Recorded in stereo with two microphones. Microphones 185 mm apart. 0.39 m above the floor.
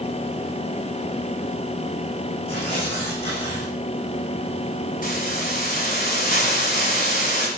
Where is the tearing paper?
35° left (ahead or behind), 4 m.